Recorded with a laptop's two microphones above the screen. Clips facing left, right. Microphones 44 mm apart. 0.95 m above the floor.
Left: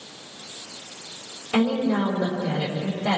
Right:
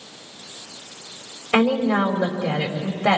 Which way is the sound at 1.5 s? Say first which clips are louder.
Right 3 dB; 80° right.